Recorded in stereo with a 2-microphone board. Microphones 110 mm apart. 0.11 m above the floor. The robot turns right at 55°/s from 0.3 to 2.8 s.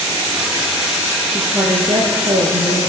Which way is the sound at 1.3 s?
155° right.